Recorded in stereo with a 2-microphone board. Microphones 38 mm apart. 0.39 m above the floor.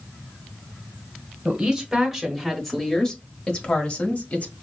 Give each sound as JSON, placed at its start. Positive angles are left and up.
{"t": 1.4, "sound": "a woman speaking", "side_deg": -20, "distance_m": 1.3}